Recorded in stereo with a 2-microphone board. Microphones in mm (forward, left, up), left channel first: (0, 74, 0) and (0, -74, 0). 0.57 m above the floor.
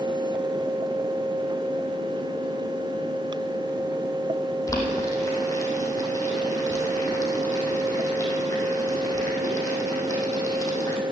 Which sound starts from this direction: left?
Boiling, at 4.7 s.